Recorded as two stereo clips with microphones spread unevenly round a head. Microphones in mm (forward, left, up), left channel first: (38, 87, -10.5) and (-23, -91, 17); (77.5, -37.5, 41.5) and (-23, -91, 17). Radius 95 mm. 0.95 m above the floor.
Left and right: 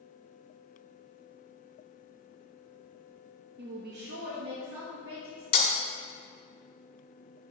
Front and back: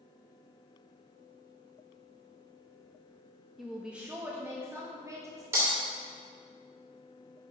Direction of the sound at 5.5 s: 130° left.